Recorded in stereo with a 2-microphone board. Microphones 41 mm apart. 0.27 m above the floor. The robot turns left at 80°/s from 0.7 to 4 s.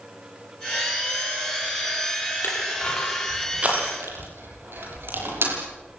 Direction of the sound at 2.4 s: 60° left (ahead or behind).